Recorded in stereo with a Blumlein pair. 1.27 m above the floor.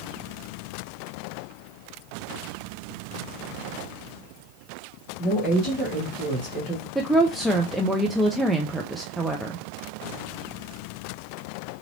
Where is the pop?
I don't hear a pop.